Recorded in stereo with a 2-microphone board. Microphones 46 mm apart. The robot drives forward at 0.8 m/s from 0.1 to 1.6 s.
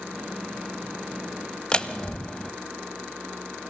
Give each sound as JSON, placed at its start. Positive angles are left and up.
{"t": 1.7, "sound": "a door slam", "side_deg": 20, "distance_m": 1.3}